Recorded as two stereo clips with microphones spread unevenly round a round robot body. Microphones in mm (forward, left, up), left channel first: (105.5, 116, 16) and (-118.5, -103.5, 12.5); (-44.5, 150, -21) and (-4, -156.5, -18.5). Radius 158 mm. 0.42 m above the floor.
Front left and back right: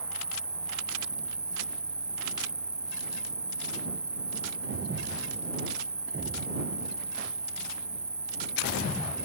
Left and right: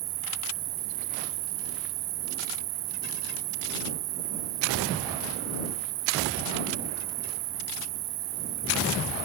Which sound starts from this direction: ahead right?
An insect, at 0.0 s.